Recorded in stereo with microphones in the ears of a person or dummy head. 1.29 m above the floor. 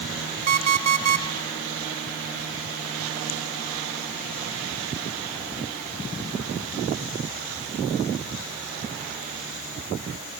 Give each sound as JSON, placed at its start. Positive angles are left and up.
{"t": 0.5, "sound": "an alarm clock", "side_deg": -45, "distance_m": 3.0}